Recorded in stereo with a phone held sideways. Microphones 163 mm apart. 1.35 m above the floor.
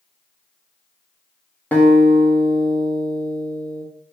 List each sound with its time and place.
1.7 s a guitar: 10° left (ahead or behind), 1.2 m